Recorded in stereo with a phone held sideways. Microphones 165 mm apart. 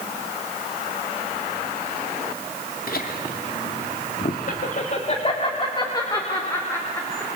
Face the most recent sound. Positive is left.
turn(degrees=10)  # may be behind; listen again after turning